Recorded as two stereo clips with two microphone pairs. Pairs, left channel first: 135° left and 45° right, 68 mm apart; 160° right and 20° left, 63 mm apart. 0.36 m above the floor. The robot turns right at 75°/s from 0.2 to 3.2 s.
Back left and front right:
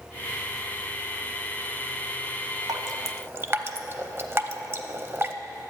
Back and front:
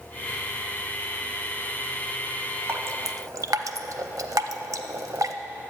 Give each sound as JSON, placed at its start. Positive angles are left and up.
{"t": 2.7, "sound": "dripping", "azimuth_deg": -30, "distance_m": 0.5}